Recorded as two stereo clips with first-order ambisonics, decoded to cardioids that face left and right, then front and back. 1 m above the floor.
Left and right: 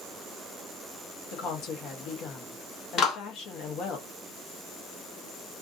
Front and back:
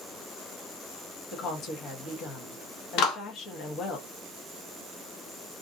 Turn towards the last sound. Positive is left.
turn(degrees=30)